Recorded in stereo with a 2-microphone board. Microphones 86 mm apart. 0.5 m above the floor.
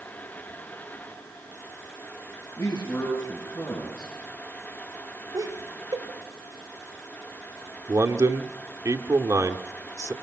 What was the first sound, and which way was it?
A man speaking, 30° left (ahead or behind).